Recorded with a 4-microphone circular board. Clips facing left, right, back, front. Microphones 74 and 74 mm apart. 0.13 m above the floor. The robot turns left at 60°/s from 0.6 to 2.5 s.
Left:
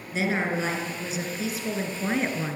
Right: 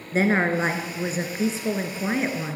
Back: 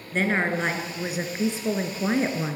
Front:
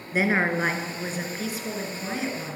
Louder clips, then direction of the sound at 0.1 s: Right 5 dB, front 1 dB; 75° right.